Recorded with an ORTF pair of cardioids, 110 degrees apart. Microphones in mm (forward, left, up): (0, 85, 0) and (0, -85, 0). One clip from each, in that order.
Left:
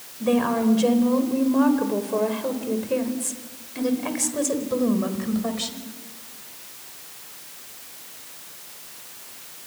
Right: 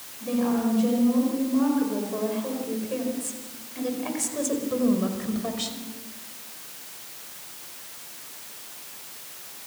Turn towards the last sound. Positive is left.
turn(degrees=10)